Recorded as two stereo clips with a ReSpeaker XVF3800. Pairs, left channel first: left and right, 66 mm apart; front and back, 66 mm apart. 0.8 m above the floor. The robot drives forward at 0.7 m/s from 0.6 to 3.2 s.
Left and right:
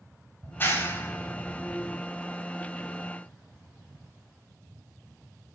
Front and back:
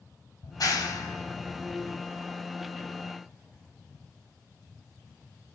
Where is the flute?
I don't hear a flute.